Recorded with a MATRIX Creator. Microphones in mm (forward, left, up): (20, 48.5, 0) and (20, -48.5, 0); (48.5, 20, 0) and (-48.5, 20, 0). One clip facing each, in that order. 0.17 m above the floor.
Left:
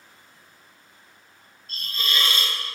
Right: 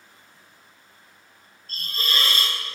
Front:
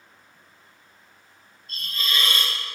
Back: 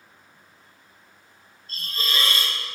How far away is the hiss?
About 1.4 m.